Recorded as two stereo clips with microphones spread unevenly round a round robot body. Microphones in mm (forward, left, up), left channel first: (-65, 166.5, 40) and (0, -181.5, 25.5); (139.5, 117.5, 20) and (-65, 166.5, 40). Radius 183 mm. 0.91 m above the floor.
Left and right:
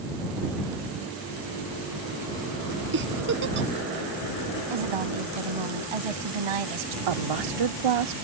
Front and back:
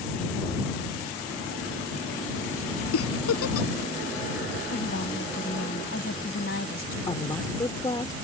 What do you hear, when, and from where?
2.9 s a giggle: 20° right
4.7 s a woman speaking: 75° right
7.1 s a woman speaking: 95° right